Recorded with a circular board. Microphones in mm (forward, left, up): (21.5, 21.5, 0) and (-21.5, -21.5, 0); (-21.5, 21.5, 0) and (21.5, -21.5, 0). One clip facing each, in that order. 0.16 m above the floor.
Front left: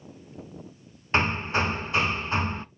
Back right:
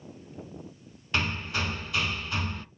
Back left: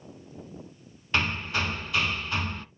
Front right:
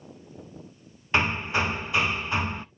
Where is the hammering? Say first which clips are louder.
Front left 5 dB, front right 3 dB; 15° left, 0.6 m.